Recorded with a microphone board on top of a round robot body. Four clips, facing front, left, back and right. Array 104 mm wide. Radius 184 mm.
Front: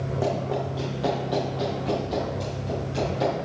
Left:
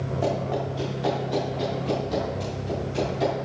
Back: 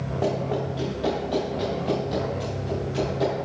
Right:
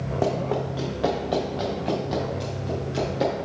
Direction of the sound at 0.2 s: 85° right.